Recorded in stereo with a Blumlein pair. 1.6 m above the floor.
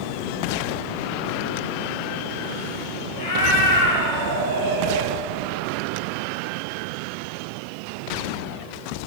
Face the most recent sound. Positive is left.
turn(degrees=55)